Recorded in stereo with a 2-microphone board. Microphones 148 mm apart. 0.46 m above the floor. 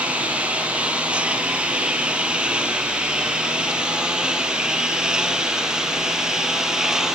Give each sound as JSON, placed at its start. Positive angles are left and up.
{"t": 0.0, "sound": "a lawn mower", "side_deg": -10}